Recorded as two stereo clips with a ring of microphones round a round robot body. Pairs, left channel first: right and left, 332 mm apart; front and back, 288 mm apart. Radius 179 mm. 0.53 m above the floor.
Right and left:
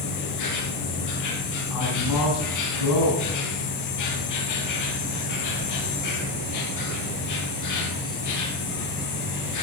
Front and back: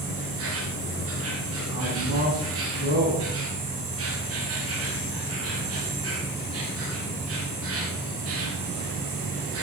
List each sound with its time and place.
0.0 s an insect: 130° right, 2.5 m
1.7 s a man speaking: 115° right, 5.5 m